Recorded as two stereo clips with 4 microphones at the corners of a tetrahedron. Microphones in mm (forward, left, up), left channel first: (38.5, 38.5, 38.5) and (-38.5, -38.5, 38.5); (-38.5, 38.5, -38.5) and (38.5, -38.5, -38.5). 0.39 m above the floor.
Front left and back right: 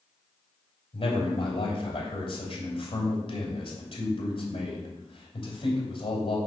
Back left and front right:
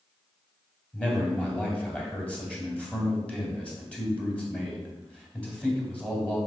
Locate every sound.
0.9 s a man speaking: 60° left, 2.5 m